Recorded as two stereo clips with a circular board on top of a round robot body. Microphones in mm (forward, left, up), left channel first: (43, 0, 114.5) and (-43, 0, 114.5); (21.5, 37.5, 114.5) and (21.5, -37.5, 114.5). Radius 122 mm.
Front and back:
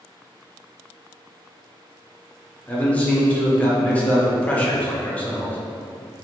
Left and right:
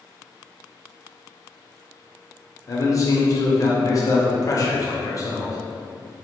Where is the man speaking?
70° left, 0.8 m.